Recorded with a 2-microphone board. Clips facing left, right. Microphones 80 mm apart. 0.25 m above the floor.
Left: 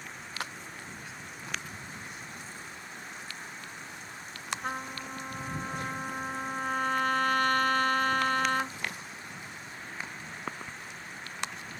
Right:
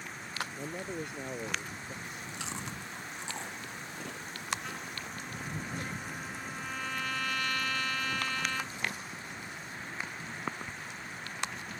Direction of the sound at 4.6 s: 45° left (ahead or behind).